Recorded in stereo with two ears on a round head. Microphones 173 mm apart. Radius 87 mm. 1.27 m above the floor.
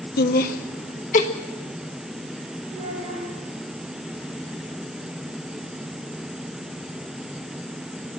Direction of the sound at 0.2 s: 55° left (ahead or behind).